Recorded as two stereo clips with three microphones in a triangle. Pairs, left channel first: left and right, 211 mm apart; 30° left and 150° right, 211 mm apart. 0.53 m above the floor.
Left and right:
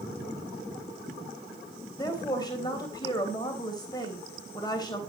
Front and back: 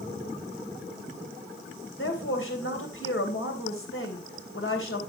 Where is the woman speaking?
20° left, 3 m.